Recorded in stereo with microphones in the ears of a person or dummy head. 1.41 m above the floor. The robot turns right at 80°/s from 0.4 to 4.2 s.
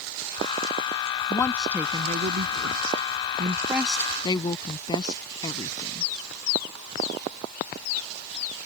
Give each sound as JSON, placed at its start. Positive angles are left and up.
{"t": 1.3, "sound": "a woman speaking", "side_deg": 25}